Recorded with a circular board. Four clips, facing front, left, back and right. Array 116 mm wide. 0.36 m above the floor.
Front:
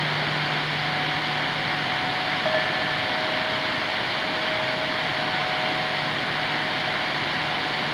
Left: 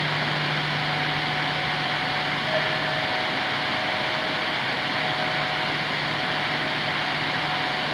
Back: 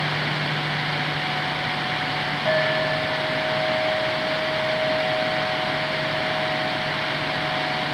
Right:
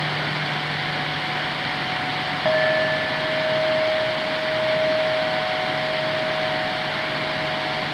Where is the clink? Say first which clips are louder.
Right 10 dB, back 5 dB; 75° right, 9.5 m.